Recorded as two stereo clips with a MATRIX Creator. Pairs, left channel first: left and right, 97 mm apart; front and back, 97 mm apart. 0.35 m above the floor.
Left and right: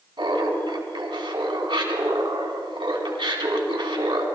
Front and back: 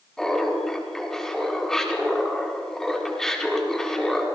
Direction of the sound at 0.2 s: 85° right.